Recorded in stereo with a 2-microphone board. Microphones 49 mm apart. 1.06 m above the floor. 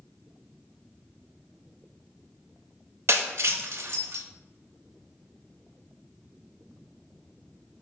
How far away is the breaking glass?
About 0.7 m.